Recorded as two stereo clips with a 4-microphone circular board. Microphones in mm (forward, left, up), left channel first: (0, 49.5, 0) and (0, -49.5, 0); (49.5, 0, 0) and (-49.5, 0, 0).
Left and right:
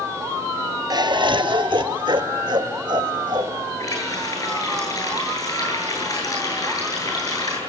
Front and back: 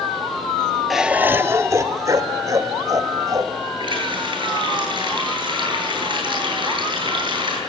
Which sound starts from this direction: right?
Laughter, at 0.9 s.